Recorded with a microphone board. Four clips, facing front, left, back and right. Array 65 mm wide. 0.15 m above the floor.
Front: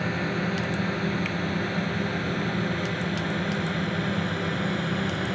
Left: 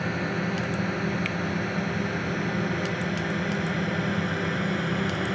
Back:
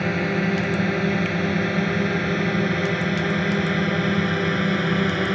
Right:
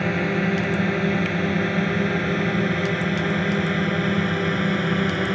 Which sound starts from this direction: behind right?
A drone, at 0.0 s.